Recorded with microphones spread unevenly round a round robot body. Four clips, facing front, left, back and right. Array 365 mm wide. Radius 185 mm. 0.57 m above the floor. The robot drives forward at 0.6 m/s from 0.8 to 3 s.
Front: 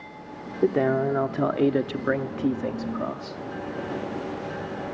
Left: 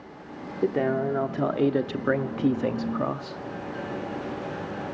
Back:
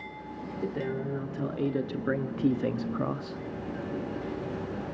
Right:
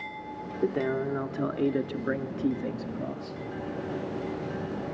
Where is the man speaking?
15° left, 1.4 m; by 3.4 s 135° left, 0.9 m.